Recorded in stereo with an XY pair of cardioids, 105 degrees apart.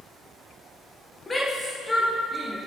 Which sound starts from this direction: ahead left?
A shout, at 1.3 s.